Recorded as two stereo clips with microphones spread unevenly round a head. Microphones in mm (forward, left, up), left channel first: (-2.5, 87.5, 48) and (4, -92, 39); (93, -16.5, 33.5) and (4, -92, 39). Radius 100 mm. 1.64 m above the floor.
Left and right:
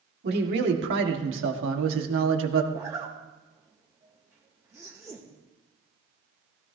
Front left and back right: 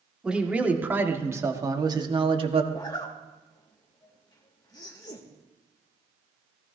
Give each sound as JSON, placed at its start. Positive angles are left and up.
{"t": 0.2, "sound": "a man speaking", "azimuth_deg": -55, "distance_m": 2.0}
{"t": 2.7, "sound": "a zipper", "azimuth_deg": -10, "distance_m": 1.8}